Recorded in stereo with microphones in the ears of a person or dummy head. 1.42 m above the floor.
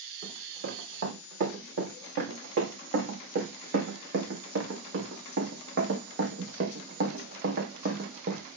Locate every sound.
0.2 s running footsteps: 50° right (ahead or behind), 4.5 m; by 8.4 s 45° right (ahead or behind), 3 m